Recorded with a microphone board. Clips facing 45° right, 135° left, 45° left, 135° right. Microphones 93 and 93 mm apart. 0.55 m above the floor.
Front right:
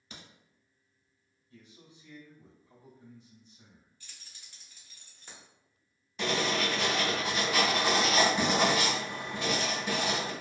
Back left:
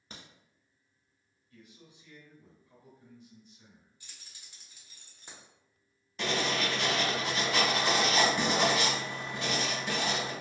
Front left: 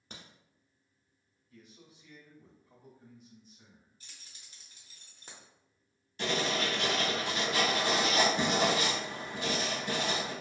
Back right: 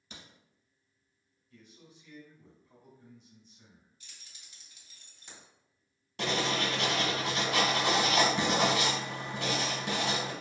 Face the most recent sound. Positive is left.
turn(degrees=-135)